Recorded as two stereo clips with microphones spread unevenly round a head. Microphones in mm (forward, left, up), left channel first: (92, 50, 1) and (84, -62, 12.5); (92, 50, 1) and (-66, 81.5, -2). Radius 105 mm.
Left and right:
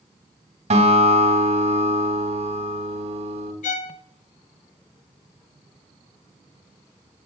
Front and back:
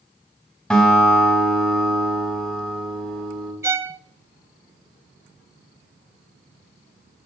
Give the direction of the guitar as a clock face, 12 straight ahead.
3 o'clock.